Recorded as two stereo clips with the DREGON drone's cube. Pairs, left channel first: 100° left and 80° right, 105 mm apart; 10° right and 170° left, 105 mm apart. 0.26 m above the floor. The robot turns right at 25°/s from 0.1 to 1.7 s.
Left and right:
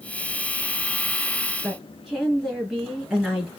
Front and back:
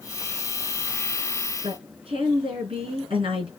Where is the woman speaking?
165° right, 4 m.